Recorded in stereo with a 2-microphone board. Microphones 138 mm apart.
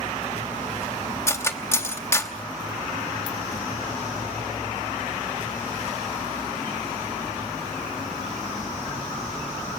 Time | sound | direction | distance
1.3 | cutlery clinking | 20° left (ahead or behind) | 1.0 m